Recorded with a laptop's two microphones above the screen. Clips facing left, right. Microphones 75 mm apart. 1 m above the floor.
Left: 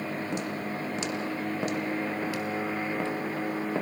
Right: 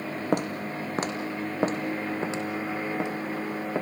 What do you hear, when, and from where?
0.3 s footsteps: 55° right (ahead or behind), 2 m; by 3.8 s 10° right (ahead or behind), 3 m